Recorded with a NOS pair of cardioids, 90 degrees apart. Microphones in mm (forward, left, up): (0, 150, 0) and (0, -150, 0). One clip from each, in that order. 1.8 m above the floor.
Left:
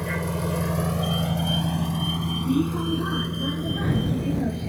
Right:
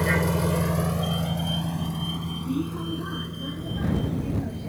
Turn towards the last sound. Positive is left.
turn(degrees=45)